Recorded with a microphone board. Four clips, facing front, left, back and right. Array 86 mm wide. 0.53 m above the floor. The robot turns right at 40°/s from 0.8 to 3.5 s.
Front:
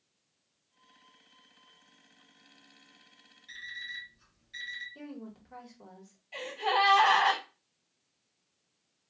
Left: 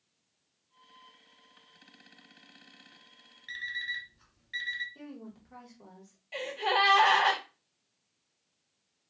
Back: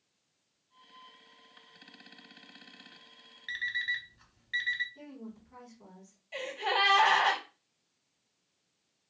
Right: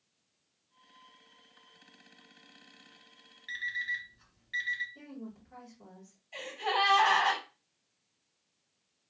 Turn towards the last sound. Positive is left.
turn(degrees=105)